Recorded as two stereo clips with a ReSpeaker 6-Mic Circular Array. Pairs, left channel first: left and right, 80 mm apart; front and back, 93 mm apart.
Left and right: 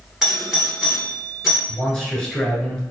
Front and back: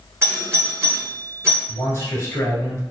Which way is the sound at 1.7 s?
20° left.